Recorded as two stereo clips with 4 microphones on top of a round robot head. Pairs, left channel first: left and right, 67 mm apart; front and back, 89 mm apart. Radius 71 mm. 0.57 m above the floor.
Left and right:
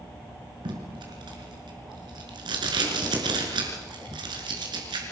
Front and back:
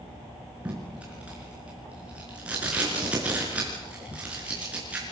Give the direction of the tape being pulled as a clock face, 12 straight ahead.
3 o'clock.